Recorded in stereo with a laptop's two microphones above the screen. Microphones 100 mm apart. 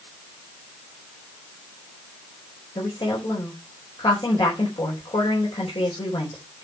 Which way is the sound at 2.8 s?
60° left (ahead or behind).